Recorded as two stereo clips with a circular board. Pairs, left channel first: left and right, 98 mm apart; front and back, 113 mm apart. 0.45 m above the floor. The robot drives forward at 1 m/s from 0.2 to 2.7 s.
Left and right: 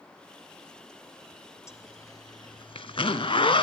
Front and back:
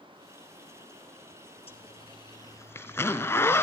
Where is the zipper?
30° left, 1.6 m; by 3.6 s 65° left, 0.8 m.